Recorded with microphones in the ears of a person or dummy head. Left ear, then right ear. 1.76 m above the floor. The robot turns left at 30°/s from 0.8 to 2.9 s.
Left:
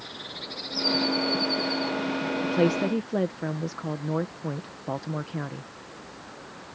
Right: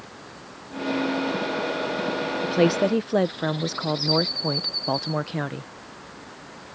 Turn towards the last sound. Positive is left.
turn(degrees=-25)  # may be behind; listen again after turning